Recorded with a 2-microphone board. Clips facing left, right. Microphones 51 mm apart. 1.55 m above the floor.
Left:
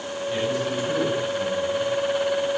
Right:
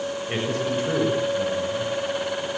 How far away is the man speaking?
About 8 m.